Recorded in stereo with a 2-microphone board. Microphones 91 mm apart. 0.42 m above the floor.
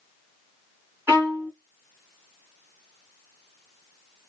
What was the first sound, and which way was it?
A violin, 25° right (ahead or behind).